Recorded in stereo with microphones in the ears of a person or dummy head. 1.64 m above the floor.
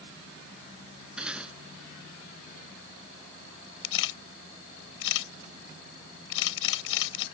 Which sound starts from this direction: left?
A camera shutter, at 3.8 s.